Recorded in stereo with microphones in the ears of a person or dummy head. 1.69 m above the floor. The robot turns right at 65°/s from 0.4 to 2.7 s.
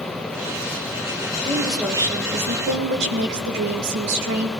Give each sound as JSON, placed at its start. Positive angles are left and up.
{"t": 1.4, "sound": "a woman speaking", "azimuth_deg": 165, "distance_m": 2.0}